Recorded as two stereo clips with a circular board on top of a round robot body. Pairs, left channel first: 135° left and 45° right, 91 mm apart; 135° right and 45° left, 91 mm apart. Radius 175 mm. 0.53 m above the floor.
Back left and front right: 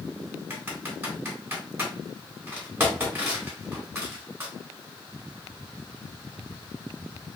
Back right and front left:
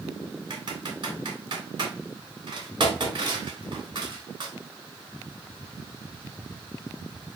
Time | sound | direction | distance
0.5 | typing on a keyboard | 15° left | 2.5 m